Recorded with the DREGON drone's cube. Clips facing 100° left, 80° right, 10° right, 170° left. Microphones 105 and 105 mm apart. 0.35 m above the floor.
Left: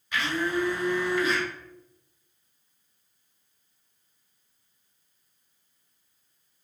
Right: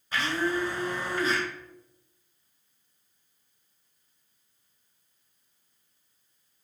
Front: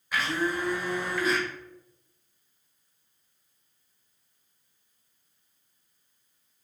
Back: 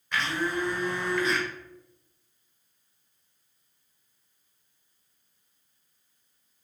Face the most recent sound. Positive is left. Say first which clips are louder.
# even, front 1 dB
turn(degrees=-95)